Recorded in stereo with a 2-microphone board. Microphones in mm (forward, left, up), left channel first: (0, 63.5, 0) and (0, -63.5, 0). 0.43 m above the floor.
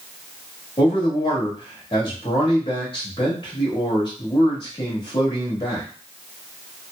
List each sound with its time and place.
0.8 s a man speaking: 40° left (ahead or behind), 1.5 m